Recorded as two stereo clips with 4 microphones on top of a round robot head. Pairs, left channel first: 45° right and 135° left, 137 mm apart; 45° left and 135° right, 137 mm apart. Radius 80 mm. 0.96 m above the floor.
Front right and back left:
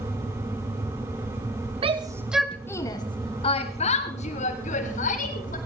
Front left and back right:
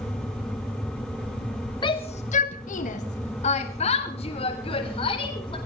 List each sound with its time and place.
1.8 s a shout: 95° left, 1.2 m; by 5.6 s 10° right, 5 m